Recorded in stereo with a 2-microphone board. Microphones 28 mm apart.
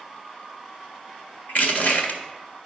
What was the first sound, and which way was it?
Crushing, 65° left (ahead or behind).